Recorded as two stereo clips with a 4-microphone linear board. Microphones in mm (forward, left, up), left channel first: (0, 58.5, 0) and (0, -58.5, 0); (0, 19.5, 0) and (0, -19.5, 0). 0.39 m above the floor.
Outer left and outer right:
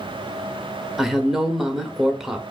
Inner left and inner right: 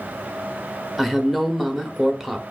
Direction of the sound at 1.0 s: 5° right (ahead or behind).